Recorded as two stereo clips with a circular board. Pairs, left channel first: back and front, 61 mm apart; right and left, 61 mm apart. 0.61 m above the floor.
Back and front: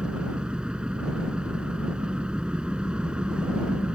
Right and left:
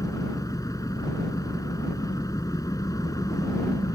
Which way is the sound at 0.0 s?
75° right.